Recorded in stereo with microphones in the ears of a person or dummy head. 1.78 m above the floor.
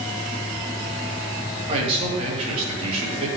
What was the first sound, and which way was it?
A man speaking, 40° right (ahead or behind).